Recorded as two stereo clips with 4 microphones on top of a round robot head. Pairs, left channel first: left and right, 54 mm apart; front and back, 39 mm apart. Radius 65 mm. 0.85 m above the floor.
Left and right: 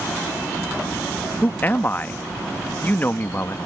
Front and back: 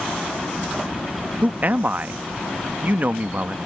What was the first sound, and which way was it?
A man speaking, 140° left.